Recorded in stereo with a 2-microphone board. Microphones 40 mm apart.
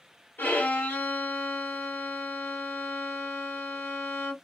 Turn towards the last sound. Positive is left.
turn(degrees=60)  # may be behind; listen again after turning